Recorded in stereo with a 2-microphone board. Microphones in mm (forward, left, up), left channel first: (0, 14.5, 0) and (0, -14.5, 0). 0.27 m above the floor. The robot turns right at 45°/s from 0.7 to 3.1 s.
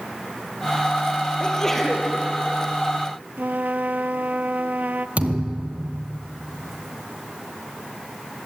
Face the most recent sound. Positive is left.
turn(degrees=-45)  # may be behind; listen again after turning